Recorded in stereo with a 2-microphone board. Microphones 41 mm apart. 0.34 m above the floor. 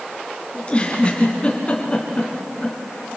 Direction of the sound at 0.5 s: 30° left (ahead or behind).